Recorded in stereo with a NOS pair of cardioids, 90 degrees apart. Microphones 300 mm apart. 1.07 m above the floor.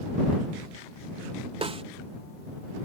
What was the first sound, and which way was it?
A snare drum, 20° right.